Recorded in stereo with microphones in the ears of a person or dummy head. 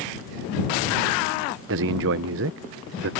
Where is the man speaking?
65° right (ahead or behind).